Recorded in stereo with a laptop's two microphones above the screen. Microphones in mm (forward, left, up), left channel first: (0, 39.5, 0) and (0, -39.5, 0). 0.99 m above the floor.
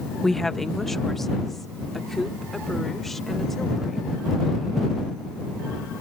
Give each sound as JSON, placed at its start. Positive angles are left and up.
{"t": 0.2, "sound": "a woman speaking", "side_deg": 5}